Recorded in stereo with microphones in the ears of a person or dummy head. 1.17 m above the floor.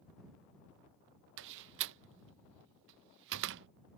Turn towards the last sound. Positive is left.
turn(degrees=-65)  # may be behind; listen again after turning